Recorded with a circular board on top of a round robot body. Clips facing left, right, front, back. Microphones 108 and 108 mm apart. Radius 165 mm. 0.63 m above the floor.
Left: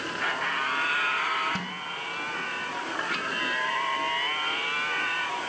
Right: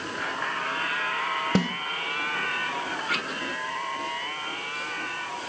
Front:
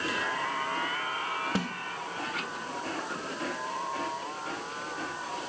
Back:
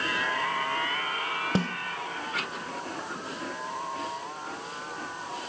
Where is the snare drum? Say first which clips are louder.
Right 10 dB, back 7 dB; 115° right, 0.5 m.